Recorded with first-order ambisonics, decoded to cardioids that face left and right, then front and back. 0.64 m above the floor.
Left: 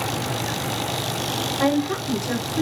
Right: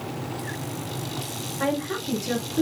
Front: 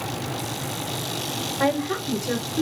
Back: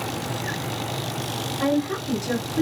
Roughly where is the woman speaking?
Ahead left.